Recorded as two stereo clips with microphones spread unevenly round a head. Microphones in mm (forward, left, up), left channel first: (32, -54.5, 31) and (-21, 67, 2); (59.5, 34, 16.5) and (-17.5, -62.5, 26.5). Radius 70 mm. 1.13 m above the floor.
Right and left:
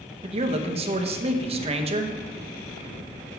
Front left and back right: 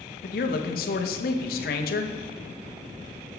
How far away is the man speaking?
About 0.7 m.